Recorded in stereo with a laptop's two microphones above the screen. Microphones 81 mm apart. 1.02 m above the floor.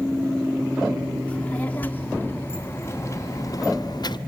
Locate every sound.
1.3 s a child speaking: 20° left (ahead or behind), 2 m; by 4.2 s 65° left (ahead or behind), 0.9 m